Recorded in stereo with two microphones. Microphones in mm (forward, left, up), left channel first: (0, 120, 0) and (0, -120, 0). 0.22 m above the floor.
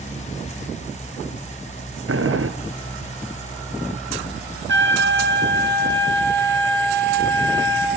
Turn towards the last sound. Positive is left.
turn(degrees=-55)  # may be behind; listen again after turning